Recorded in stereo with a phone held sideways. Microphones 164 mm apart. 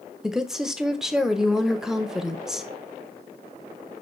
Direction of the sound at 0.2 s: 5° right (ahead or behind).